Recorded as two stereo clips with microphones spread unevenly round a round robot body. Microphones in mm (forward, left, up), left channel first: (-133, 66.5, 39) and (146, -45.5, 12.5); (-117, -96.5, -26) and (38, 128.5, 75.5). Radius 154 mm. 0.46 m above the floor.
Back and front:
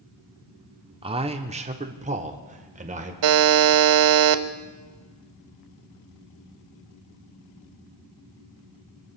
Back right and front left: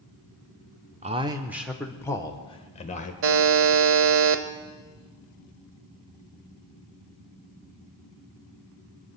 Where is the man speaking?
30° right, 0.8 m; by 3.1 s 80° right, 1.5 m.